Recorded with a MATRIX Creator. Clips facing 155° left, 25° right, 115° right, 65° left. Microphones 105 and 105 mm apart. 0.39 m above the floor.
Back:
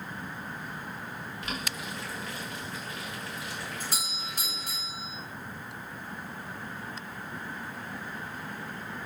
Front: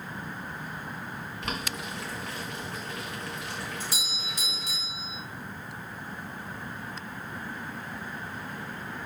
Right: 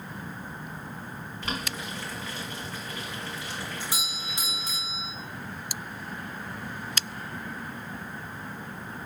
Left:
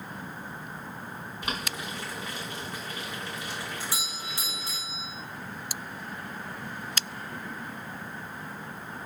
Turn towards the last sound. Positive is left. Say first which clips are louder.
# even, right 1 dB
turn(degrees=180)